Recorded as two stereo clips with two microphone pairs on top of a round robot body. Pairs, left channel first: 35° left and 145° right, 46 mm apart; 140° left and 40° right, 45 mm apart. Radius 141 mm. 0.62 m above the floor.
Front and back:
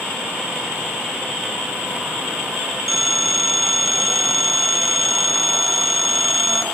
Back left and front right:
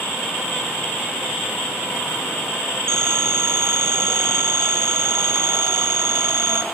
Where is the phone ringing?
60° right, 1.8 m.